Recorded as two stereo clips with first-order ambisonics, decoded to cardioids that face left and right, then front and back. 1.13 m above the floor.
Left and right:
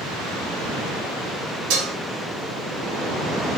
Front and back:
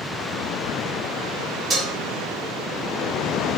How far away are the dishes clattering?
About 1.4 m.